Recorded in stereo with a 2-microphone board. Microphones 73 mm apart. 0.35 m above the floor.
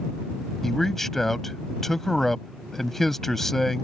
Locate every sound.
0.6 s a man speaking: 5° left (ahead or behind)